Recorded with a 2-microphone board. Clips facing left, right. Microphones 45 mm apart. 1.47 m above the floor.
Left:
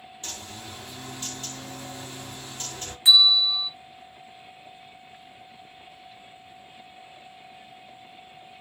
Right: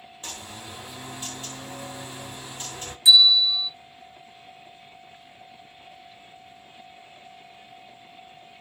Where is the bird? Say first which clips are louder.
Right 1 dB; 10° right (ahead or behind), 1.1 m.